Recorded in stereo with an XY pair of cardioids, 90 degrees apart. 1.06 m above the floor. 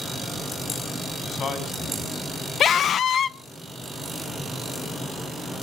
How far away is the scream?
About 0.8 m.